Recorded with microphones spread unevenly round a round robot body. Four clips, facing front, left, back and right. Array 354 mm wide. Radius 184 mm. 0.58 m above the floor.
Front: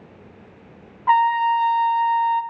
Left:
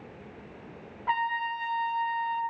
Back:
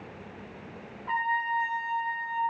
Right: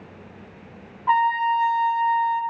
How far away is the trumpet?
About 0.6 m.